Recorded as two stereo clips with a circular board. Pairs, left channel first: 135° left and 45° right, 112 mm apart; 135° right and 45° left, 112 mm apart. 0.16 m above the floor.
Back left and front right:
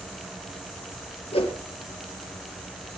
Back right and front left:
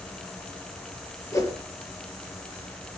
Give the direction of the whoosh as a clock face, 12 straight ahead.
7 o'clock.